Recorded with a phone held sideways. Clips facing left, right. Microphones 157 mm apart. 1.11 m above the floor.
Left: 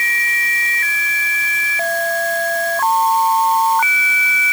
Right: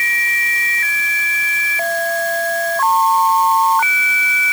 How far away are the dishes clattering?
No dishes clattering in this recording.